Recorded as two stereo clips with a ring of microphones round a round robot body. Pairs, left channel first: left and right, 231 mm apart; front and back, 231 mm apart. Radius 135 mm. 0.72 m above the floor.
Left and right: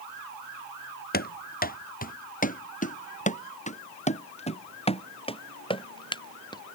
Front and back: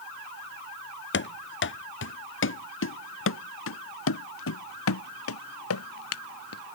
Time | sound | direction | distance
1.1 | running footsteps | 40° left | ?